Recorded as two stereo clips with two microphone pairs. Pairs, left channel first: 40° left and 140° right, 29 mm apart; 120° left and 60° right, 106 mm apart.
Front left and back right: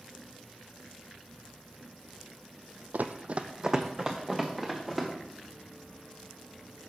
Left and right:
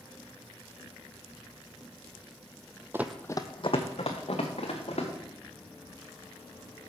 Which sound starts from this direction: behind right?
Running footsteps, at 2.9 s.